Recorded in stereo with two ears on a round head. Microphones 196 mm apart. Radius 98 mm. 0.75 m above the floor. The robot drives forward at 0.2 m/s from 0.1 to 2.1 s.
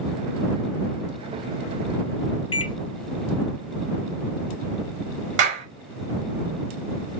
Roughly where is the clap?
Right.